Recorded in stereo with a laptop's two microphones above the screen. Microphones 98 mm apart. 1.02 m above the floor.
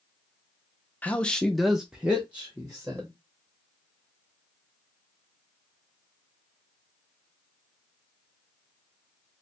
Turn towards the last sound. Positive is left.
turn(degrees=-15)  # may be behind; listen again after turning